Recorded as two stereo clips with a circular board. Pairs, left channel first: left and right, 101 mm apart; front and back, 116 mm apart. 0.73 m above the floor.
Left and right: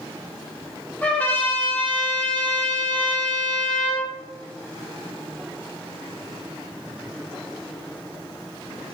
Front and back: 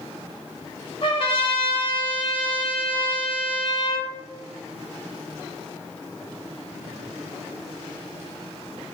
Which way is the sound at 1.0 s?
20° left.